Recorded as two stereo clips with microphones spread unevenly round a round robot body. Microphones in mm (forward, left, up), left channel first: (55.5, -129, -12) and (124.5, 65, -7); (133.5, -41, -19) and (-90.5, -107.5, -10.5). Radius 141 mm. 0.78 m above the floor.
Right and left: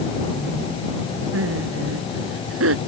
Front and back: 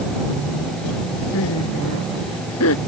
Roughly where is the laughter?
Ahead left.